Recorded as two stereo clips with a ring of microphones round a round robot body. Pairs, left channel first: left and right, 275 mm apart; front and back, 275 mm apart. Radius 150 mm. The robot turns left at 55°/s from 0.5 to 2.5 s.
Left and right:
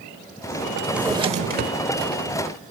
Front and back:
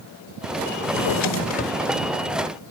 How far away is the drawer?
About 0.9 m.